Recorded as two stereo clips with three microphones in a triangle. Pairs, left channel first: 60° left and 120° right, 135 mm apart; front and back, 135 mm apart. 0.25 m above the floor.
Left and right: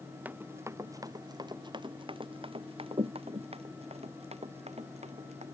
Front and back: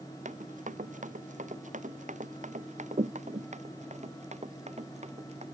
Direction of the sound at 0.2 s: 165° left.